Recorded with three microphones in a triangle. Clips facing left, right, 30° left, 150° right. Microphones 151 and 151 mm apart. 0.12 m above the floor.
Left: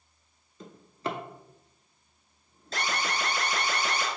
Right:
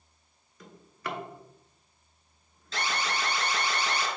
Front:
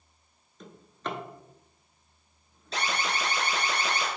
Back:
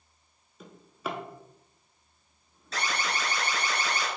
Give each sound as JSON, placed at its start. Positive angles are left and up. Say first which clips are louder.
{"t": 0.6, "sound": "a drawer", "louder": "left 5 dB, even", "azimuth_deg": 135, "distance_m": 0.6}
{"t": 2.7, "sound": "an alarm", "louder": "even, front 1 dB", "azimuth_deg": 75, "distance_m": 1.4}